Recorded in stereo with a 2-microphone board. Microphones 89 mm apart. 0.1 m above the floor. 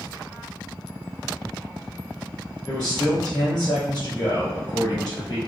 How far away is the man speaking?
About 1.9 m.